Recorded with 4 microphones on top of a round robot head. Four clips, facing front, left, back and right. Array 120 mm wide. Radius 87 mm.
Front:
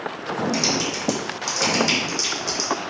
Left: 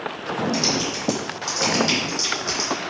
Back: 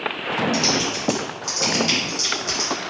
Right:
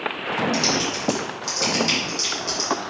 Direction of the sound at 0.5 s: 50° left.